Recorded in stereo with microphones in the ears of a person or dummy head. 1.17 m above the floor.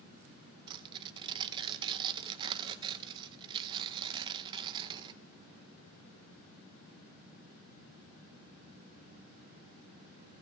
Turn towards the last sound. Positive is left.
turn(degrees=-20)  # may be behind; listen again after turning